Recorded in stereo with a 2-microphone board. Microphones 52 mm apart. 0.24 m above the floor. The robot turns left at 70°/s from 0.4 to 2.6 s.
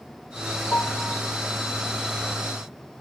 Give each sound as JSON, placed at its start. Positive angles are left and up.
{"t": 0.7, "sound": "a piano", "azimuth_deg": 45, "distance_m": 4.0}